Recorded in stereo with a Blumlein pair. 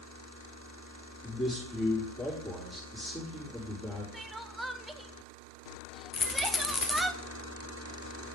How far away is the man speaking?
About 3.5 m.